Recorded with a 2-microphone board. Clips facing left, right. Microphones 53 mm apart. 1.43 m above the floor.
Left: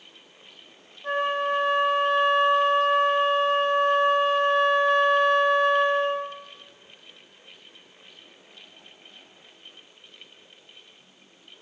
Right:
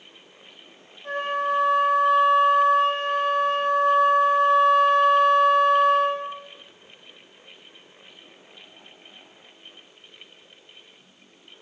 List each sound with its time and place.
1.0 s a flute: 45° left (ahead or behind), 1.7 m